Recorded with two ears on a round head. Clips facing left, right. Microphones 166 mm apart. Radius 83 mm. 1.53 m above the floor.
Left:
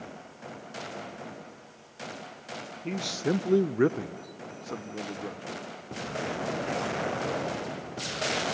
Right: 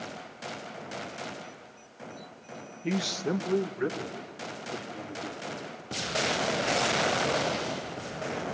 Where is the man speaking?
15° right (ahead or behind), 0.6 m; by 5.6 s 85° left, 1.6 m.